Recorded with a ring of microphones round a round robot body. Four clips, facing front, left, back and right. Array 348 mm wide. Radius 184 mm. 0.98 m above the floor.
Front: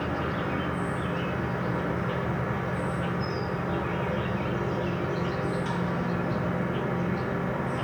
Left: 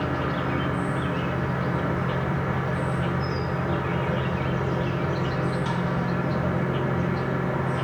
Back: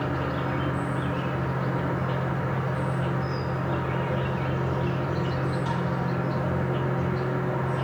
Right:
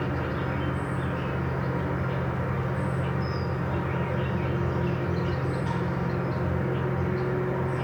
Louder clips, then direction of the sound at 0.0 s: Left 3 dB, back 1 dB; 95° left.